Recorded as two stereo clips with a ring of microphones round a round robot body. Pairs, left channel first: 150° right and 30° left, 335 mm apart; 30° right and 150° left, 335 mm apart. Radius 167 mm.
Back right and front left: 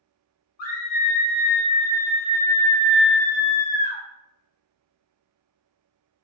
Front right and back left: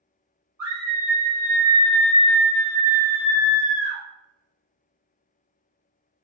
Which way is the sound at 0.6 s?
135° right.